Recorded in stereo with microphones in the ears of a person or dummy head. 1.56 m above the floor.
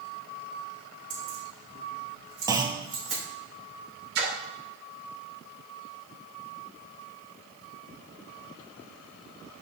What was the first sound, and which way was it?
Keys jangling, 45° right (ahead or behind).